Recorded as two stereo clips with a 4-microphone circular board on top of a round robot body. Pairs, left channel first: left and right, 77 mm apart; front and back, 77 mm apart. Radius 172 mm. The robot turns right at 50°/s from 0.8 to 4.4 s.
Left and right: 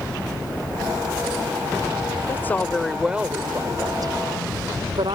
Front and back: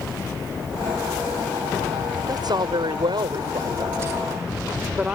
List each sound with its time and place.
2.3 s a woman speaking: 150° left; by 5.2 s 105° right